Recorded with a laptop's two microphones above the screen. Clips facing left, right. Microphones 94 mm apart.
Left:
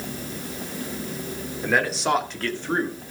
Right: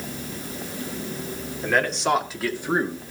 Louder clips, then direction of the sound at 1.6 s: Even; 5° left (ahead or behind).